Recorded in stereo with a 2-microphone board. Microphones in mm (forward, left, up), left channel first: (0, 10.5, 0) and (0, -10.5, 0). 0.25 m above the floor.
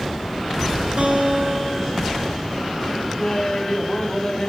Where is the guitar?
65° right (ahead or behind), 3.5 m.